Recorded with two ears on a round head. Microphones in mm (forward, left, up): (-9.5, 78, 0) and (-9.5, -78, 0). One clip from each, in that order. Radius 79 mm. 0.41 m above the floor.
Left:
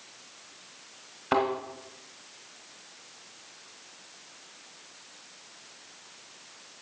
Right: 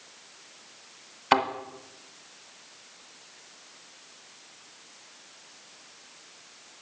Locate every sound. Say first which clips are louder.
1.3 s a thud: right 3 dB; 65° right (ahead or behind), 1.4 m